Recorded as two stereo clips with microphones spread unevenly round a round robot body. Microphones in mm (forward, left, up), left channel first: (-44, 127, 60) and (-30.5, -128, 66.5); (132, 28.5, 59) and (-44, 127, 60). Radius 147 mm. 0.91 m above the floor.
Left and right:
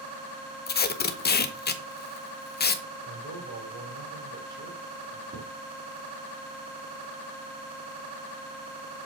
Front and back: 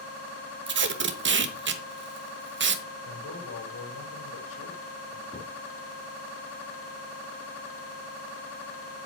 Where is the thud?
135° right, 4 m.